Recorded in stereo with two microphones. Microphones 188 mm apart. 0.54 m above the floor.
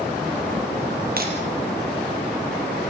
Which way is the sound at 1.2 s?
55° right (ahead or behind).